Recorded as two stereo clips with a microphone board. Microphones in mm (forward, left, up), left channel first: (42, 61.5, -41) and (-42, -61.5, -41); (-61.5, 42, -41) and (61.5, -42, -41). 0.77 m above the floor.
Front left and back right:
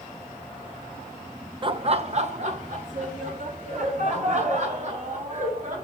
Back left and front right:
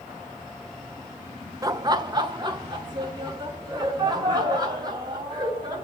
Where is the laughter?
90° right, 0.5 m; by 5.8 s 95° right, 4 m.